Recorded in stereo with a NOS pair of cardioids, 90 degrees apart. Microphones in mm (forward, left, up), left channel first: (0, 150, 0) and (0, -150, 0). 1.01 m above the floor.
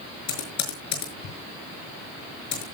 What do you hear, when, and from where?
0.3 s typing on a keyboard: 65° left, 5.5 m